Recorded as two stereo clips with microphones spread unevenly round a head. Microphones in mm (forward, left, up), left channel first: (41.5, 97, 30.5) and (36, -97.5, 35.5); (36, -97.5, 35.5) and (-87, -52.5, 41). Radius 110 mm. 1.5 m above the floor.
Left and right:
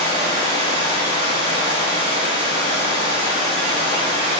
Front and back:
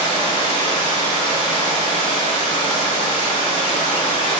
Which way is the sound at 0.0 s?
80° left.